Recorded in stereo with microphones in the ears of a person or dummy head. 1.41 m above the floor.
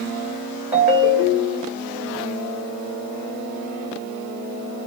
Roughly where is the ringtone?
Centre.